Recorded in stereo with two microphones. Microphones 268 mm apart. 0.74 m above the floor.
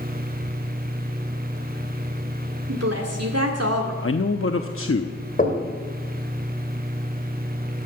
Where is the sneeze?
No sneeze in this recording.